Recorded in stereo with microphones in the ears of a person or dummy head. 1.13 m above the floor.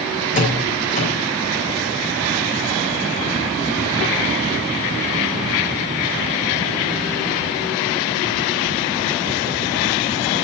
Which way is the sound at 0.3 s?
40° left (ahead or behind).